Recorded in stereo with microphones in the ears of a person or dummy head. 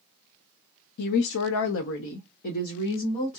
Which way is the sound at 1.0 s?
55° left (ahead or behind).